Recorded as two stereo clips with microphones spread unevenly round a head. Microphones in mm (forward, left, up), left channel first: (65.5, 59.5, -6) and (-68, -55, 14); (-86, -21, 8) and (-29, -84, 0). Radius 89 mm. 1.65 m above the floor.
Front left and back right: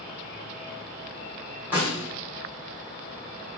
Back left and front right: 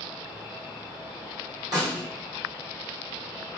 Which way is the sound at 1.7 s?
70° right.